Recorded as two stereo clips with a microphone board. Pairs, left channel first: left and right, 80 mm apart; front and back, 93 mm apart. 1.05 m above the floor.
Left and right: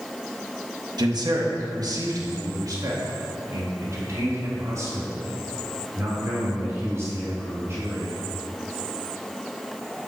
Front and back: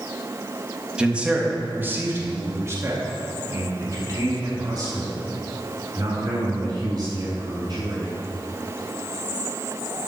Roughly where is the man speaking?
Right.